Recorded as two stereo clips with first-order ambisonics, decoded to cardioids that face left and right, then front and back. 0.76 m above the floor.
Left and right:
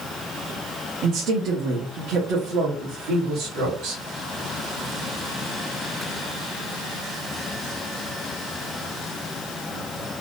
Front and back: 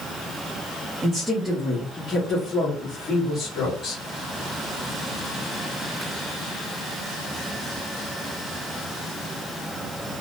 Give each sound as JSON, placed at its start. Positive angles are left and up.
{"t": 1.0, "sound": "a woman speaking", "azimuth_deg": -105, "distance_m": 0.6}